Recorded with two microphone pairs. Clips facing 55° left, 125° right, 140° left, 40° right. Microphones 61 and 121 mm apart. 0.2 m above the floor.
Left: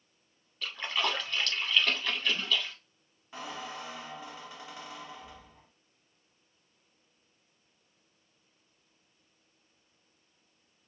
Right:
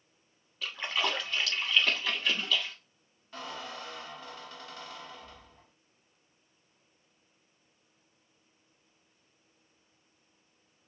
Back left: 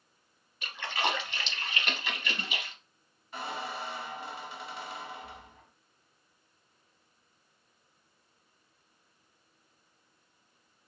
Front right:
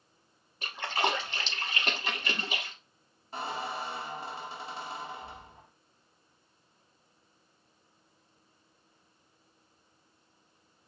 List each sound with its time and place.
0.6 s a splash: 40° right, 0.7 m
3.3 s a squeak: 10° right, 0.8 m